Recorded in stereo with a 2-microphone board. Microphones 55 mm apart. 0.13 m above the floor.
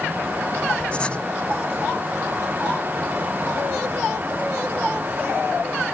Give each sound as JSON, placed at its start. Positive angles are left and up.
{"t": 0.9, "sound": "writing", "side_deg": 20}